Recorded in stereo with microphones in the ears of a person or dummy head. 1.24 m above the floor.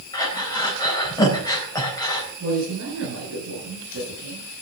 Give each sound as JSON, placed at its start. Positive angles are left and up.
{"t": 0.1, "sound": "breathing", "side_deg": 15, "distance_m": 4.0}
{"t": 2.4, "sound": "a man speaking", "side_deg": -75, "distance_m": 8.0}